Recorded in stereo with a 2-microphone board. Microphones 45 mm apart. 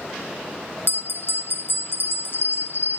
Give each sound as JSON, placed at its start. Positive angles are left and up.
{"t": 0.9, "sound": "a bell", "side_deg": 55, "distance_m": 0.6}